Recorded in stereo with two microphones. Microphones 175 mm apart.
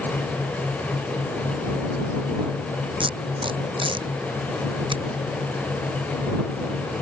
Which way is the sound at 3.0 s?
30° right (ahead or behind).